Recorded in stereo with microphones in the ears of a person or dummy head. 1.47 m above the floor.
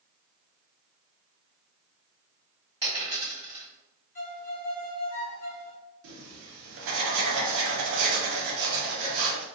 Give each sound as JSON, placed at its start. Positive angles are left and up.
{"t": 2.8, "sound": "a dropped coin", "side_deg": -25, "distance_m": 1.7}
{"t": 4.2, "sound": "a violin", "side_deg": 40, "distance_m": 1.0}
{"t": 6.0, "sound": "writing", "side_deg": -75, "distance_m": 1.0}